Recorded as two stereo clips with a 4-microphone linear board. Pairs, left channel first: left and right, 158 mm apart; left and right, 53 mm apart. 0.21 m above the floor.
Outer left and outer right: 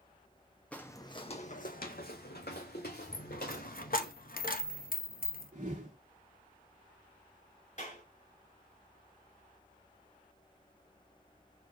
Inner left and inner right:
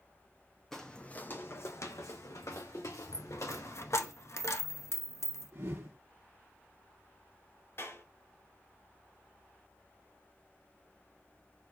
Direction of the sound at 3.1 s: 65° left (ahead or behind).